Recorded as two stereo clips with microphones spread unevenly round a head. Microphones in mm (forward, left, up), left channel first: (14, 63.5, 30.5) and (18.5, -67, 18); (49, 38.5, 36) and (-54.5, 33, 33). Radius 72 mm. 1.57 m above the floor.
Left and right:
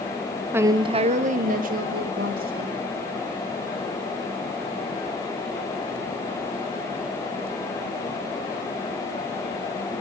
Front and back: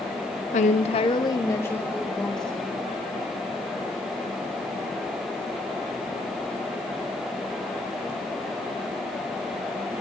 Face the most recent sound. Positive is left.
turn(degrees=-85)